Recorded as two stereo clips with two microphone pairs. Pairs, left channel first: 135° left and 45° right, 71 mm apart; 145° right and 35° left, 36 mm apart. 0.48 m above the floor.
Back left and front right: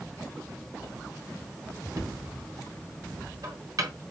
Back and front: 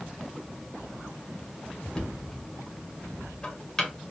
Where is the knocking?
75° right, 1.6 m.